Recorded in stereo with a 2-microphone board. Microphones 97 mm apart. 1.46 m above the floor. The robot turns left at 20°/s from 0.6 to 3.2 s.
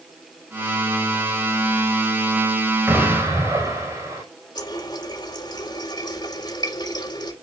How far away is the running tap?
About 3 m.